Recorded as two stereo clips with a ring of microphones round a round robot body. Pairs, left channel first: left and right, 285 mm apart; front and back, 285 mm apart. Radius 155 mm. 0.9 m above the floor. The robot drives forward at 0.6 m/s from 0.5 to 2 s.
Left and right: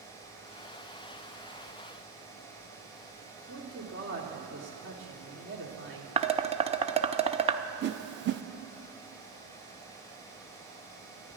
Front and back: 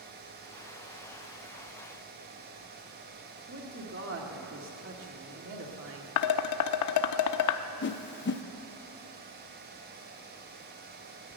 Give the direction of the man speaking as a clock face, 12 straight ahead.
5 o'clock.